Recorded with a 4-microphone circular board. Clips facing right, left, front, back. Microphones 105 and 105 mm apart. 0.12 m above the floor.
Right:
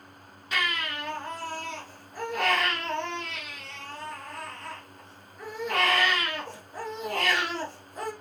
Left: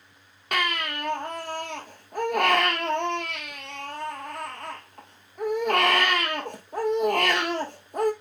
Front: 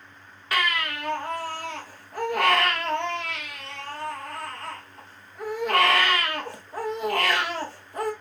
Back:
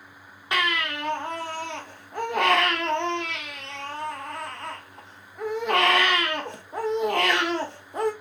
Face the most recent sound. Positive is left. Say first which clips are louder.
# left 3 dB, even
turn(degrees=115)